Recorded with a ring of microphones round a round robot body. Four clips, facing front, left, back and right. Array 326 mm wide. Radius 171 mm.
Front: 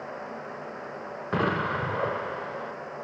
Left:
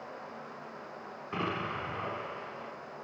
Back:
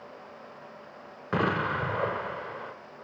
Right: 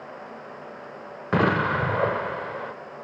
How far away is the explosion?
About 1.1 m.